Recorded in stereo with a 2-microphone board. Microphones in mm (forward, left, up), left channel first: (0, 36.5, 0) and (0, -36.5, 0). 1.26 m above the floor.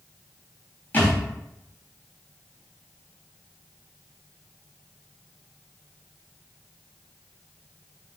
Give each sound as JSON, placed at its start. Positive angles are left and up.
{"t": 0.9, "sound": "a thud", "side_deg": 25, "distance_m": 3.5}